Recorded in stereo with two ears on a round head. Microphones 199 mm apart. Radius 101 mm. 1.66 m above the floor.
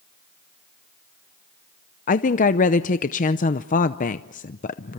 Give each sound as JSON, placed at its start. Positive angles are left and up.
{"t": 2.1, "sound": "a woman speaking", "side_deg": 35, "distance_m": 0.6}